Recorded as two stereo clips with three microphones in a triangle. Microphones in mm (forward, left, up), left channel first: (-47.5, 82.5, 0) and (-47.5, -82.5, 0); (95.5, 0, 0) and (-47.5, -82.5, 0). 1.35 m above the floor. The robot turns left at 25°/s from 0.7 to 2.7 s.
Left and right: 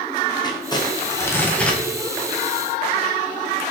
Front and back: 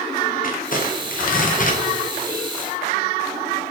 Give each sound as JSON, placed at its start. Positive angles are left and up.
{"t": 0.4, "sound": "crumpling", "azimuth_deg": 35, "distance_m": 0.5}